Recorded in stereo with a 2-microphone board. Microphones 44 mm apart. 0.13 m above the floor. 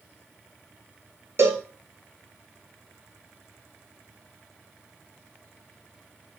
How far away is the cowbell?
About 1.2 m.